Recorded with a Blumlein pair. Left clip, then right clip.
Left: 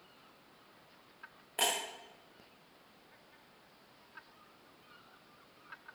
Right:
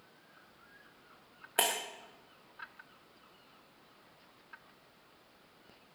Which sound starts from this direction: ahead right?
Breaking glass, at 1.6 s.